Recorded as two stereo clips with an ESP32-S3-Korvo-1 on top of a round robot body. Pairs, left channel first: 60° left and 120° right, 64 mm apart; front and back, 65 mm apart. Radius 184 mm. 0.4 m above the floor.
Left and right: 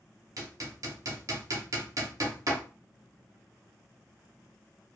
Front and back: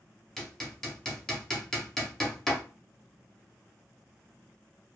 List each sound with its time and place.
0.4 s hammering: 80° right, 1.1 m